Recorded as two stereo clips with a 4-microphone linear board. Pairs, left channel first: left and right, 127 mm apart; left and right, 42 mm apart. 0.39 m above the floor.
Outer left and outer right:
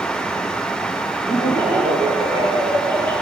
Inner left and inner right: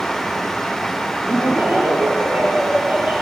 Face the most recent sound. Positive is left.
turn(degrees=-40)  # may be behind; listen again after turning